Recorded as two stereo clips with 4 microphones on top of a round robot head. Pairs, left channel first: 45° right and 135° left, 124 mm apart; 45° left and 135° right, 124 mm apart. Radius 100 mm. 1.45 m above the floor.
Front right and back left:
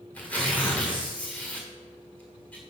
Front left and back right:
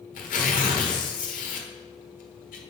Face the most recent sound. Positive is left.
turn(degrees=35)